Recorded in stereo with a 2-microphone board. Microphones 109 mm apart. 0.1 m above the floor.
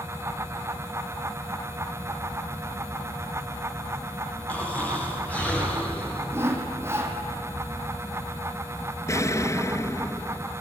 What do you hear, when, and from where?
4.5 s snoring: 15° left (ahead or behind), 8.5 m
6.3 s sawing: 25° right (ahead or behind), 3 m
9.1 s an explosion: 30° left (ahead or behind), 0.5 m